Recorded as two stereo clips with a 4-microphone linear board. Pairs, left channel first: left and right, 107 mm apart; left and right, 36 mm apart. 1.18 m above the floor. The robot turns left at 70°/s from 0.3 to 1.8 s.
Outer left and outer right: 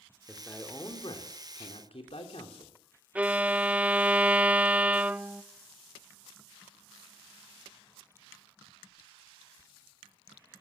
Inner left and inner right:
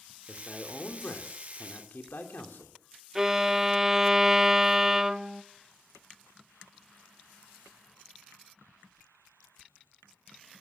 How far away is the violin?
About 0.5 m.